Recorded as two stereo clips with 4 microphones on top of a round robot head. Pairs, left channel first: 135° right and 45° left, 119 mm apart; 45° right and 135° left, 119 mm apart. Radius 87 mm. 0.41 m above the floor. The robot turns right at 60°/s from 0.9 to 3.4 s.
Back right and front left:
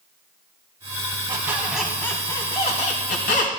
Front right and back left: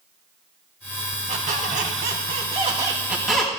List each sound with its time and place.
1.3 s a squeak: 105° left, 2.5 m; by 3.6 s 130° right, 2.5 m